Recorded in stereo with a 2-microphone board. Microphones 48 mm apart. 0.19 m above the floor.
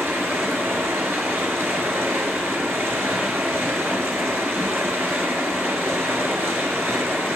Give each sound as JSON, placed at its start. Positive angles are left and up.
{"t": 0.0, "sound": "running water", "side_deg": -65, "distance_m": 1.5}